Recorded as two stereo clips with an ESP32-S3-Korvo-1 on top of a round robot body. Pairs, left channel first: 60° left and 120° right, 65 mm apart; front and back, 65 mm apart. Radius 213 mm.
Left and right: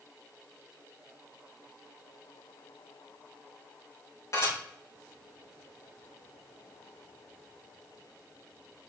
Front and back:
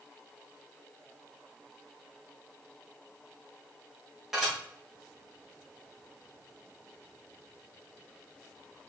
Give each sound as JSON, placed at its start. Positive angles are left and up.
{"t": 4.3, "sound": "dishes clattering", "azimuth_deg": 95, "distance_m": 4.5}